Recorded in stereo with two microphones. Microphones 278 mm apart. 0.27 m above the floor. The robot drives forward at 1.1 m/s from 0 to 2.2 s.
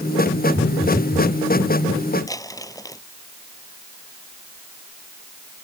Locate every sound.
0.6 s a phone buzzing: 35° left (ahead or behind); by 1.3 s 30° left (ahead or behind)
2.3 s crumpling: 10° left (ahead or behind)